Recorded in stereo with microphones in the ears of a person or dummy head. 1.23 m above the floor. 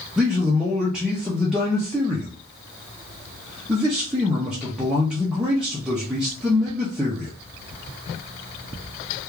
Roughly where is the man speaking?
Centre.